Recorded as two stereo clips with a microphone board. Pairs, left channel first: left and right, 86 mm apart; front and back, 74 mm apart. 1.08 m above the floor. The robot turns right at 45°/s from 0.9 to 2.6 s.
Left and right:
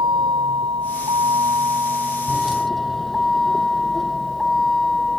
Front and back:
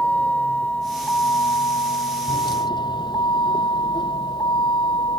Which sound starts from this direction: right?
A vehicle, at 0.0 s.